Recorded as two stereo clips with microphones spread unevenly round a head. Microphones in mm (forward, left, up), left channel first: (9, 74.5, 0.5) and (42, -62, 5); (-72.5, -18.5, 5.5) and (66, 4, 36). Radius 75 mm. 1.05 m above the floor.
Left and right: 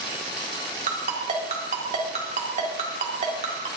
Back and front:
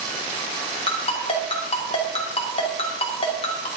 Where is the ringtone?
125° right, 2 m.